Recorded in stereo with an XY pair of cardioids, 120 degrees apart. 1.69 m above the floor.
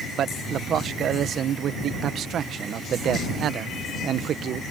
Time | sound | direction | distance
0.2 | a man speaking | 55° right | ?